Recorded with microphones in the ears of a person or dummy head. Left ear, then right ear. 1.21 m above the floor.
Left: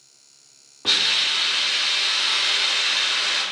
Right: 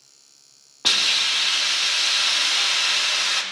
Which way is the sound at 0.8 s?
80° right.